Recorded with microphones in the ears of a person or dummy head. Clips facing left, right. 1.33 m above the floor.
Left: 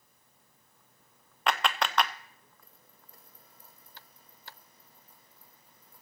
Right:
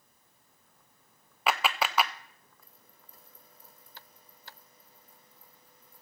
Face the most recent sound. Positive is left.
turn(degrees=-5)  # may be behind; listen again after turning